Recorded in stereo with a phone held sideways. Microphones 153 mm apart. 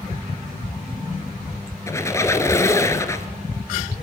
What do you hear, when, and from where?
1.9 s a squeak: 20° left (ahead or behind), 1.2 m